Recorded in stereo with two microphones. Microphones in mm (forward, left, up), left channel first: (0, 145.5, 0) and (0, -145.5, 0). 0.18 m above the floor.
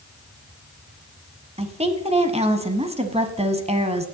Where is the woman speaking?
20° right (ahead or behind), 1.3 m.